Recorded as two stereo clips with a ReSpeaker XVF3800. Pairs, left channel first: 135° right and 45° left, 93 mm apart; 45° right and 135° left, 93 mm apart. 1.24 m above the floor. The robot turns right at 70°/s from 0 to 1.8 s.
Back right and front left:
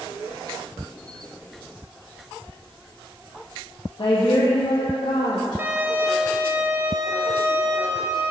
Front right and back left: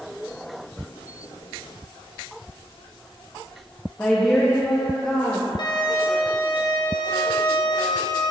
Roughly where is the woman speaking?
Behind right.